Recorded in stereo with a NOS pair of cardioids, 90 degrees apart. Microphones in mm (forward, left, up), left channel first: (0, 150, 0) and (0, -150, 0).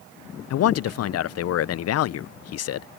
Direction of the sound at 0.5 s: 60° left.